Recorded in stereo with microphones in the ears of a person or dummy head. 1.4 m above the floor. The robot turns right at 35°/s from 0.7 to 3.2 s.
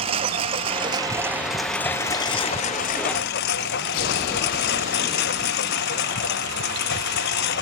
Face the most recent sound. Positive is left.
turn(degrees=60)  # may be behind; listen again after turning